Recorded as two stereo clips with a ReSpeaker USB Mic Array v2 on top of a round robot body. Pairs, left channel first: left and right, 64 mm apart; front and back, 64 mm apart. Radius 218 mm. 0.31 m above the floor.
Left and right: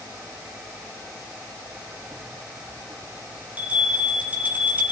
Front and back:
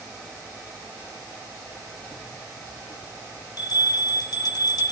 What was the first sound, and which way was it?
A bell, 20° right.